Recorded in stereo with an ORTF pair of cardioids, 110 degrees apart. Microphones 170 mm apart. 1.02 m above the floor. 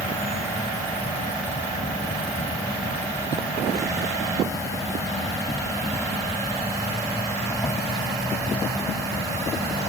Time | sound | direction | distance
0.0 | an insect | 15° left | ?